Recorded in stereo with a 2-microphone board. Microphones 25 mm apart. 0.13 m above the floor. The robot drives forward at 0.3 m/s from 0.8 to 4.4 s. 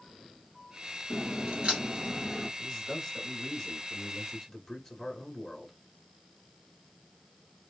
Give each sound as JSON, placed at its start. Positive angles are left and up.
{"t": 1.1, "sound": "a crack", "side_deg": -40, "distance_m": 2.5}
{"t": 2.6, "sound": "a man speaking", "side_deg": 5, "distance_m": 1.7}